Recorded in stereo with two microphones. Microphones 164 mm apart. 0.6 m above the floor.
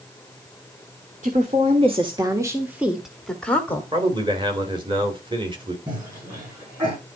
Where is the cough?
30° right (ahead or behind), 7.5 m.